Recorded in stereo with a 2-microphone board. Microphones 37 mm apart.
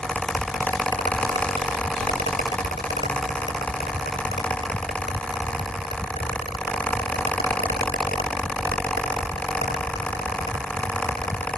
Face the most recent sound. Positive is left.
No sound to turn to.